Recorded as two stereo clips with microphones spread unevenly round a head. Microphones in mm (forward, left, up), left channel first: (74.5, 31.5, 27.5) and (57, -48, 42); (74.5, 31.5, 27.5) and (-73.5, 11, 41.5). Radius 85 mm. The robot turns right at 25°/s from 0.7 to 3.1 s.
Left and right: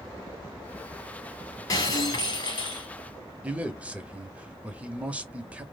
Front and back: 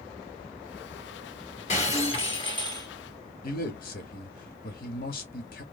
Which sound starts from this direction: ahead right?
A man speaking, at 3.4 s.